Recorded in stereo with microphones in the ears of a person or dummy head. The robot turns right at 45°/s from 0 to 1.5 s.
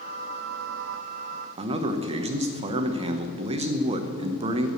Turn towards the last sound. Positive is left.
turn(degrees=-25)  # may be behind; listen again after turning